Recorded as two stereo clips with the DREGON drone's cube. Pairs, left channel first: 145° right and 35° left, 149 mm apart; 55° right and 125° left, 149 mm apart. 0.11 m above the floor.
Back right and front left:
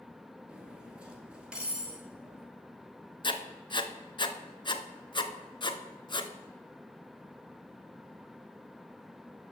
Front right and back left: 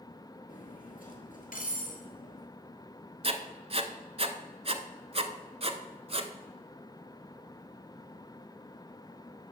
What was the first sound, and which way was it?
Cutlery clinking, 45° right.